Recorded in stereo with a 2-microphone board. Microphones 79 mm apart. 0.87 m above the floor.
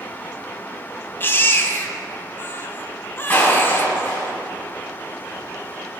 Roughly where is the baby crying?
Left.